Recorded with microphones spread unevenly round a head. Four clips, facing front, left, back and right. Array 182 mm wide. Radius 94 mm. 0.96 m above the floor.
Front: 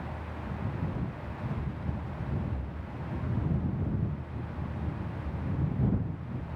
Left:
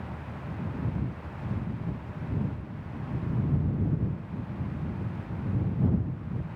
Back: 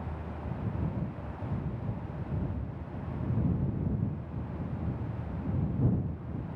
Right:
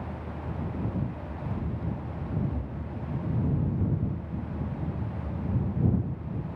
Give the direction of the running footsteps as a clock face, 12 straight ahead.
3 o'clock.